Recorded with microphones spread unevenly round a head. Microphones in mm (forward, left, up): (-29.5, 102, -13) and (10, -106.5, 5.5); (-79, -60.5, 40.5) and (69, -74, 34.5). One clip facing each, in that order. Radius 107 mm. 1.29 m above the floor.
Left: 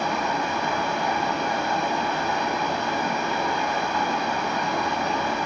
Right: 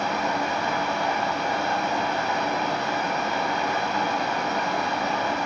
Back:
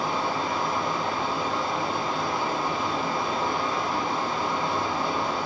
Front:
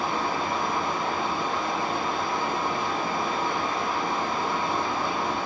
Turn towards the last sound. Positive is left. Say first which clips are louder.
# even, even
turn(degrees=100)